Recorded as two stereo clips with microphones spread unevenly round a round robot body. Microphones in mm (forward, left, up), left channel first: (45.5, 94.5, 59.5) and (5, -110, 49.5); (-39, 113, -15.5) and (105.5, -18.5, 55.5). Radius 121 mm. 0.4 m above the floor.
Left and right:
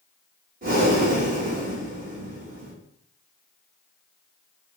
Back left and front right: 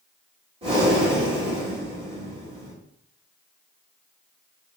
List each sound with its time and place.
0.6 s breathing: 120° right, 1.6 m